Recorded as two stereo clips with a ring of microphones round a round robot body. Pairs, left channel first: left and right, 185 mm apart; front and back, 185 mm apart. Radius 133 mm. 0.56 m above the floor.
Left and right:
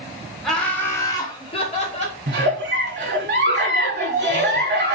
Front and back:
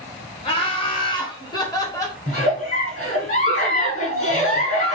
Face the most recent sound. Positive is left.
turn(degrees=-65)